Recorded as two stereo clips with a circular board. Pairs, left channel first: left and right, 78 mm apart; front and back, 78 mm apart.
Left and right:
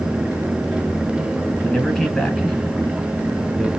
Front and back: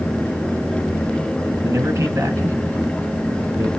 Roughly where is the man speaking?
Behind.